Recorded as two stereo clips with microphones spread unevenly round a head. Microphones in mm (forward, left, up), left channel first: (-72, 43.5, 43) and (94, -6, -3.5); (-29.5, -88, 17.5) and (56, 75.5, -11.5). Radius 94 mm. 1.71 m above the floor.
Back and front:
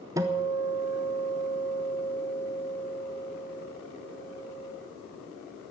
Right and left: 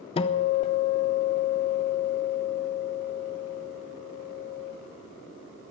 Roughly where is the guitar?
Right.